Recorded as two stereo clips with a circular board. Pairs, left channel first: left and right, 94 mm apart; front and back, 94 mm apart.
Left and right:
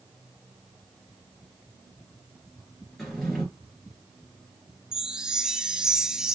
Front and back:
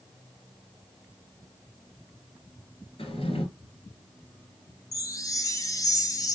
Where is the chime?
10° right, 0.6 m.